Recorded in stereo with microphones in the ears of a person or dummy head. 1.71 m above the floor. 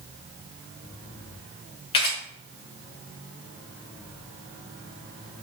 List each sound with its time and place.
1.9 s a camera shutter: 30° left (ahead or behind), 1.1 m